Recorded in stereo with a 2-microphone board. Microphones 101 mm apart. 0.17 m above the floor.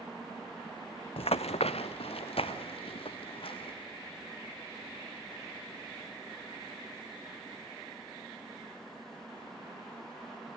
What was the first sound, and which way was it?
Running footsteps, 70° left (ahead or behind).